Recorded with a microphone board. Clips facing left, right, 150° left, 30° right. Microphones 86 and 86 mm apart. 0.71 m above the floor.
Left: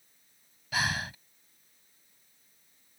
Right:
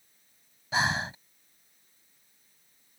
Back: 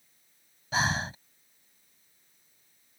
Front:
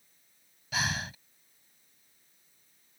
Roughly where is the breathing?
Behind right.